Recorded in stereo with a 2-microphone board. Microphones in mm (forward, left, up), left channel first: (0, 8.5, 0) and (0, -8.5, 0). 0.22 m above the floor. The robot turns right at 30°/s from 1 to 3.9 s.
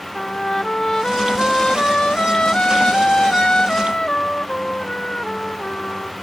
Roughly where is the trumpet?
Ahead left.